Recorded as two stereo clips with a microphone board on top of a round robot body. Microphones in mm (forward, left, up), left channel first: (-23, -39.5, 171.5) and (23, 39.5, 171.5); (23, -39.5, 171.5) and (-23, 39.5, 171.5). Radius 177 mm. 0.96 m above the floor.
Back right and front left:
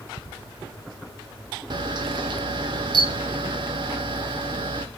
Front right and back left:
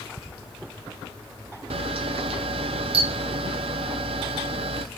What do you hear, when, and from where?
1.7 s a camera shutter: 100° left, 0.7 m